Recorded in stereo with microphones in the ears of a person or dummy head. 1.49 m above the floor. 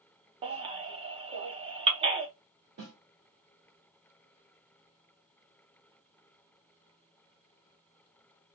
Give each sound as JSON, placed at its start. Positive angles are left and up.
{"t": 0.4, "sound": "a baby crying", "side_deg": -25, "distance_m": 0.6}
{"t": 2.8, "sound": "a snare drum", "side_deg": -50, "distance_m": 1.6}